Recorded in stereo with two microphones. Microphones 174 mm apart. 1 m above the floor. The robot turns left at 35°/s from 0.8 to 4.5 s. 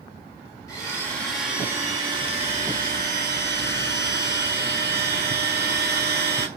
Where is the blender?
20° left, 1.3 m; by 6.5 s 110° right, 1.3 m.